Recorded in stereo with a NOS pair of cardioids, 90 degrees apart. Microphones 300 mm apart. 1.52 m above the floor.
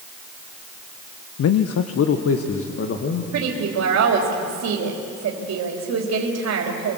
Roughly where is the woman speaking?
Ahead right.